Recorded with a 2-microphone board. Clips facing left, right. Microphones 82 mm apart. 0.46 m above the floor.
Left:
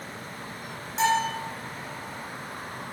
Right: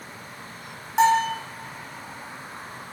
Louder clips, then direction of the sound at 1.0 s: Right 5 dB; 60° right (ahead or behind).